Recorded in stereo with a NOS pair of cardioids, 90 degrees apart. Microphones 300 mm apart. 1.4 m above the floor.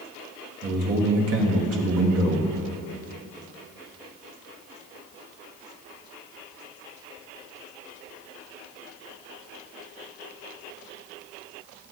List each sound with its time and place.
0.6 s a man speaking: 50° right, 1.6 m